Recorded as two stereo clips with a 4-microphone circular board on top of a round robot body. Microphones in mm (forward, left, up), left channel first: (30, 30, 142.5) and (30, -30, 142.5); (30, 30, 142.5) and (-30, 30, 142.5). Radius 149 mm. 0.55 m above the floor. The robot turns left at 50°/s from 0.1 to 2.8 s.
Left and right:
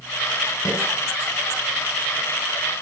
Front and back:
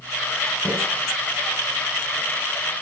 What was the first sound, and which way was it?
A snare drum, 65° left.